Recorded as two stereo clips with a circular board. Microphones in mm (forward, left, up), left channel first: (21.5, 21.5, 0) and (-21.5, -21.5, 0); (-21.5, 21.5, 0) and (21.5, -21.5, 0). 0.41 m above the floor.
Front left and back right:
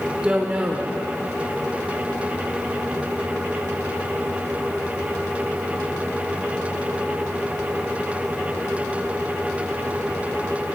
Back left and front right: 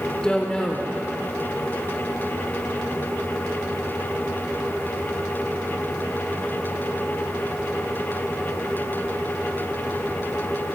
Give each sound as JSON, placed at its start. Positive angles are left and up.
{"t": 0.2, "sound": "a woman speaking", "azimuth_deg": -170, "distance_m": 1.0}